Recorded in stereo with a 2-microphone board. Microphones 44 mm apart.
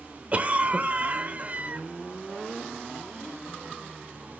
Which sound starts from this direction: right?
A cough, at 0.3 s.